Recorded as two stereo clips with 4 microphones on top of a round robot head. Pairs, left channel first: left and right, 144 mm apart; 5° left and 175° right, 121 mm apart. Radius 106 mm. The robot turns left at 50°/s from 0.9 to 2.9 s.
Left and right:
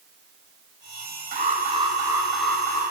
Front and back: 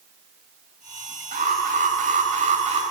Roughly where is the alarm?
Behind right.